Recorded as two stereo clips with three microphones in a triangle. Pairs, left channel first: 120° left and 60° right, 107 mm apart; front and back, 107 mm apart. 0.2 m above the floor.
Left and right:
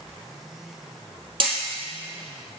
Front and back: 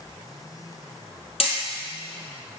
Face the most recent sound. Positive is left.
turn(degrees=-20)